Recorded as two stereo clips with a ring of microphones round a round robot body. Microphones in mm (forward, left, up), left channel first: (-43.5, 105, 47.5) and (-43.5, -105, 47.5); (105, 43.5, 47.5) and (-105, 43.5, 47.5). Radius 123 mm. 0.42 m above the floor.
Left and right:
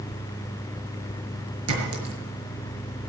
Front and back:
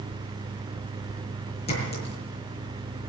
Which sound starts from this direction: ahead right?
A clink, at 1.7 s.